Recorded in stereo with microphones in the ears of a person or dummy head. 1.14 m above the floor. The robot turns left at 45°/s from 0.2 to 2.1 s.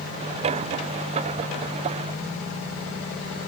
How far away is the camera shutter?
No camera shutter in this recording.